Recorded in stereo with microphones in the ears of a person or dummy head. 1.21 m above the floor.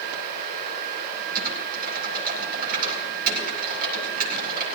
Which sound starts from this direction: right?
Typing on a keyboard, at 1.4 s.